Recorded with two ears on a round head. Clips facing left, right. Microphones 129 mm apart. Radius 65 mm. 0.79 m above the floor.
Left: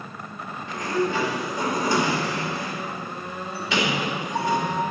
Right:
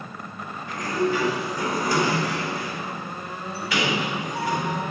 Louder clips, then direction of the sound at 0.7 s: Even; 25° left (ahead or behind).